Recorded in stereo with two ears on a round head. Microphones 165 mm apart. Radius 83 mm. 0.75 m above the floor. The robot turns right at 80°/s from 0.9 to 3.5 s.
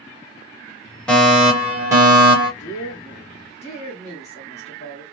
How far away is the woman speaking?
About 1.3 m.